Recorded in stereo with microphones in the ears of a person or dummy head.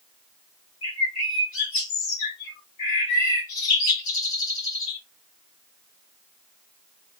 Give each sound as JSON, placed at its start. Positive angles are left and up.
{"t": 0.8, "sound": "a bird", "side_deg": 40, "distance_m": 2.0}